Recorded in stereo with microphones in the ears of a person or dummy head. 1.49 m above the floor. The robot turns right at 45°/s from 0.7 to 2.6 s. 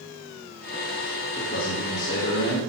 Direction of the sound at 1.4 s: 40° left.